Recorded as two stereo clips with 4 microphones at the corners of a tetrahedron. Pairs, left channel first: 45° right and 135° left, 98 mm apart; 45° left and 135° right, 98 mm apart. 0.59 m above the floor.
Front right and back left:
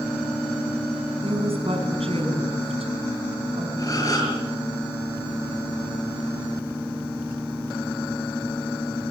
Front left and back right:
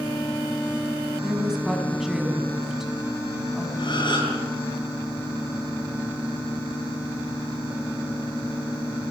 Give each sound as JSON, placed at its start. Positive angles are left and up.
{"t": 1.2, "sound": "a woman speaking", "azimuth_deg": 140, "distance_m": 5.0}
{"t": 3.8, "sound": "a gasp", "azimuth_deg": 10, "distance_m": 7.5}